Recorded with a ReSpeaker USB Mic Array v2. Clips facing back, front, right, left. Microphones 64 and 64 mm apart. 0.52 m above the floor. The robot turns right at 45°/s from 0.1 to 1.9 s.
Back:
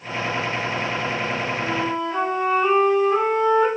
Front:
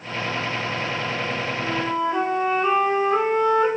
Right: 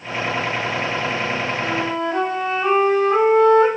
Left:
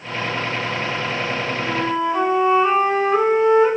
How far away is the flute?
About 3 m.